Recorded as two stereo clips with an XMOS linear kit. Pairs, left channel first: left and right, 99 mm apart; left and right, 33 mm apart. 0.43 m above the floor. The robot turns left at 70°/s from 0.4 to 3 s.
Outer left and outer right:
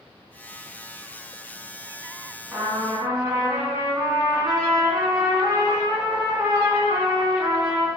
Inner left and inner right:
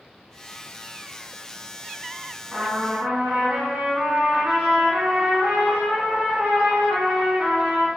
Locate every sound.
2.5 s a trumpet: 25° right, 1.1 m; by 7.9 s 60° right, 1.1 m